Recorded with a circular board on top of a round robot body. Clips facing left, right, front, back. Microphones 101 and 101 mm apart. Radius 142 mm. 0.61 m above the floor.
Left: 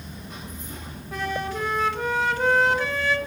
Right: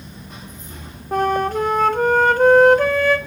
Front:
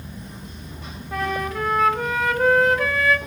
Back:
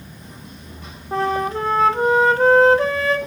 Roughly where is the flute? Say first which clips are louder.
Right 10 dB, back 5 dB; behind right.